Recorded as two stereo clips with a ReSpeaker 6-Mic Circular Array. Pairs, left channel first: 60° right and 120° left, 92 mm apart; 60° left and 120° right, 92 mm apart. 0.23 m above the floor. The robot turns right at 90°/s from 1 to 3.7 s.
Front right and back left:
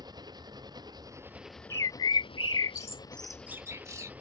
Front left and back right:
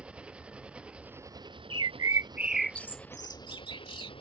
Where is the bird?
110° right; by 4.1 s 70° left.